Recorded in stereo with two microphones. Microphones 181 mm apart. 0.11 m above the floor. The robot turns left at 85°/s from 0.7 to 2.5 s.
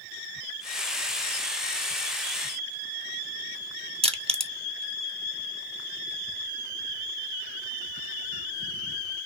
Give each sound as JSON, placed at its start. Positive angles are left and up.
{"t": 4.0, "sound": "crushing", "side_deg": -30, "distance_m": 0.7}